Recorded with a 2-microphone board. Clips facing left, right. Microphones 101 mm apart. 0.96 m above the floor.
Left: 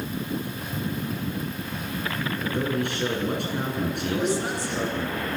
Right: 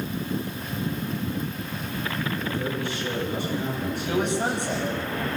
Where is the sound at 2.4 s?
60° left (ahead or behind), 10 m.